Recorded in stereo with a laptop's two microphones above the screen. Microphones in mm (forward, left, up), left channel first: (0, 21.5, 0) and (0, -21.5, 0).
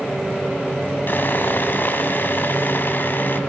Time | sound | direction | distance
1.1 | sawing | 50° left (ahead or behind) | 2.5 m